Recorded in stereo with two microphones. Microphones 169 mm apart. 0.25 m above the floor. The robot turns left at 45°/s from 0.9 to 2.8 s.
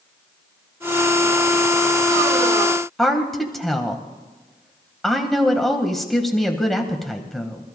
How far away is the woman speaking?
About 1.2 m.